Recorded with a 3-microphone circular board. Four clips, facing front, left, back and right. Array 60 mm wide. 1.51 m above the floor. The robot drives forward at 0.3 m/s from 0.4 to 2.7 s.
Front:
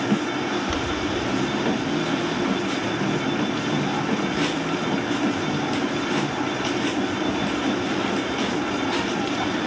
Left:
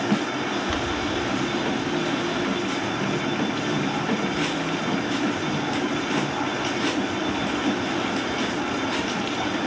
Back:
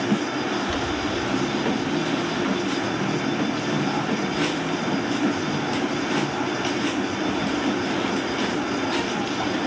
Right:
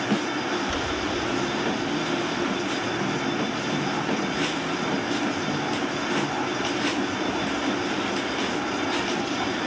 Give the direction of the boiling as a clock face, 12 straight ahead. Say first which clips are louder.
Left 1 dB, even; 11 o'clock.